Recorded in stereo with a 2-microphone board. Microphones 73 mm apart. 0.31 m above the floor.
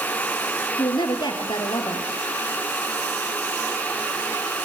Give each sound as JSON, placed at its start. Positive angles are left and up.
{"t": 0.8, "sound": "a woman speaking", "side_deg": 80, "distance_m": 5.5}